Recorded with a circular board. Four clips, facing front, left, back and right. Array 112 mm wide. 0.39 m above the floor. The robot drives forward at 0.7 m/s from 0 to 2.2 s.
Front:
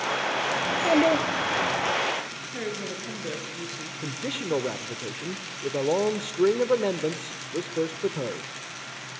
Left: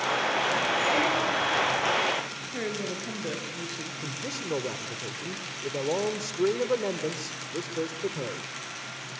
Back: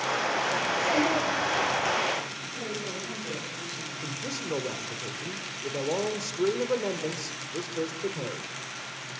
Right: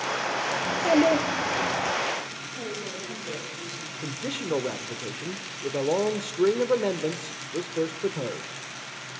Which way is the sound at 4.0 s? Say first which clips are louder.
Right 5 dB, front 5 dB; 35° right.